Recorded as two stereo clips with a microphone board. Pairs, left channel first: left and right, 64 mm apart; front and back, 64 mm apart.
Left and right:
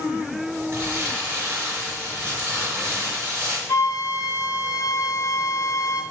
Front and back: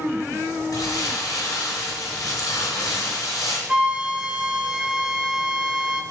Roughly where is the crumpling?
Ahead right.